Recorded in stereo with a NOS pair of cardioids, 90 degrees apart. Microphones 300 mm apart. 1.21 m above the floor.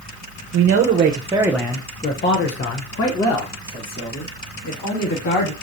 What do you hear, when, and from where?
0.5 s a man speaking: 55° right, 0.8 m; by 5.5 s 70° left, 2.5 m